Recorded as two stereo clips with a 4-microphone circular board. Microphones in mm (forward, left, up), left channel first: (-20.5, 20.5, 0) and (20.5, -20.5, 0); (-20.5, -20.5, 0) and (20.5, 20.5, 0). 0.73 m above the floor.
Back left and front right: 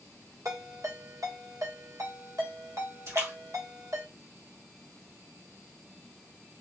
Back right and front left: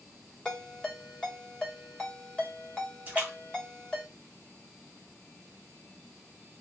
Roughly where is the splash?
Ahead.